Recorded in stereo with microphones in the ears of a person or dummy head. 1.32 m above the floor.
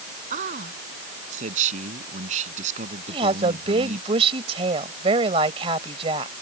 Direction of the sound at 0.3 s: 45° right (ahead or behind).